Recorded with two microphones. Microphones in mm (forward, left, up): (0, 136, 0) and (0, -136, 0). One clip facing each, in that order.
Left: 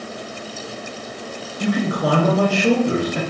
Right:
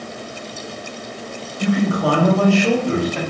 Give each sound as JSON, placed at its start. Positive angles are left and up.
{"t": 1.6, "sound": "a man speaking", "side_deg": 20, "distance_m": 0.7}